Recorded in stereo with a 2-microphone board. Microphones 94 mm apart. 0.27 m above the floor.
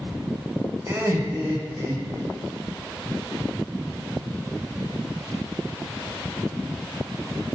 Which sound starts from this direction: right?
Laughter, at 0.9 s.